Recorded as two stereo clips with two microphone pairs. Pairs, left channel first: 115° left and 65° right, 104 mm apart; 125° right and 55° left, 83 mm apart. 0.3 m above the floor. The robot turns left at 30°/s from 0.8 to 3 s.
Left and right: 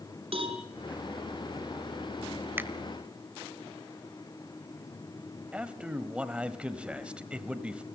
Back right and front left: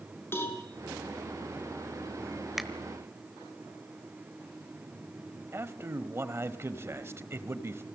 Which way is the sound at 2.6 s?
35° right.